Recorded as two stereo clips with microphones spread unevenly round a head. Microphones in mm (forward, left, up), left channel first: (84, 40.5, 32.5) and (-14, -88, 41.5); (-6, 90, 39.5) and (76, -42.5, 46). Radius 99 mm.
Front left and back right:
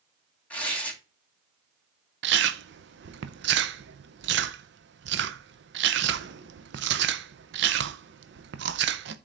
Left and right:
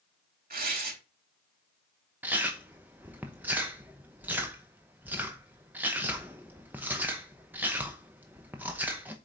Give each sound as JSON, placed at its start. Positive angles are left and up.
{"t": 0.5, "sound": "tearing paper", "azimuth_deg": -30, "distance_m": 3.0}
{"t": 2.2, "sound": "chewing", "azimuth_deg": -140, "distance_m": 0.6}